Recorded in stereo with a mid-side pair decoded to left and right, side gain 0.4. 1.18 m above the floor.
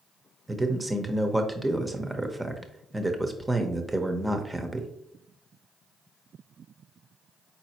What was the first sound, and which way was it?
A man speaking, 15° right.